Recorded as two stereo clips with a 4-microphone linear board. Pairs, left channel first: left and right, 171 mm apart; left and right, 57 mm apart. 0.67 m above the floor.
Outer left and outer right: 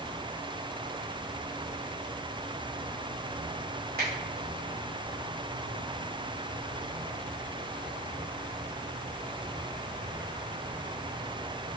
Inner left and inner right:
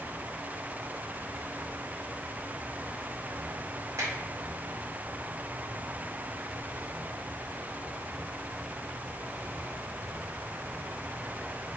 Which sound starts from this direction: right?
A finger snap, at 4.0 s.